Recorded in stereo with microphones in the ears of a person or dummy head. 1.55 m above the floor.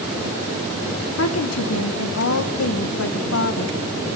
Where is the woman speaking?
80° left, 1.8 m.